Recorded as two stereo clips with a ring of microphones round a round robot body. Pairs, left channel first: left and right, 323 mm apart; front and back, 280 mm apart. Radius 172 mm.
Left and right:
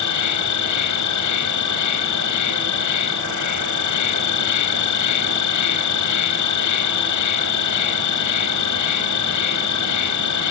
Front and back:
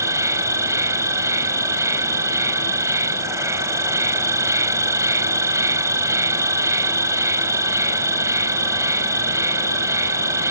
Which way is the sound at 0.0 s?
100° left.